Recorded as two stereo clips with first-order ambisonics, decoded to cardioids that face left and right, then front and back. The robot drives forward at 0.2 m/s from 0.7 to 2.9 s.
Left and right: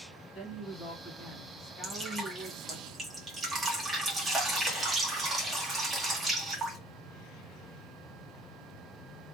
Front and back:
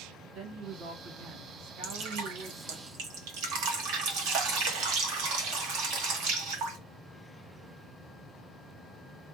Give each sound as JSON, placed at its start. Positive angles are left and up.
{"t": 0.3, "sound": "a woman speaking", "azimuth_deg": 140, "distance_m": 1.4}
{"t": 1.8, "sound": "dripping", "azimuth_deg": -165, "distance_m": 0.9}